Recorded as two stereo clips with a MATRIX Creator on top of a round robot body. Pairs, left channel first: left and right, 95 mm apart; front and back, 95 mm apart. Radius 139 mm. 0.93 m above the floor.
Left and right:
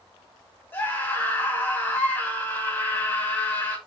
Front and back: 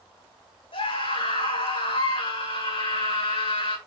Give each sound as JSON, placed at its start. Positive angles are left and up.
{"t": 0.7, "sound": "a scream", "azimuth_deg": 20, "distance_m": 7.5}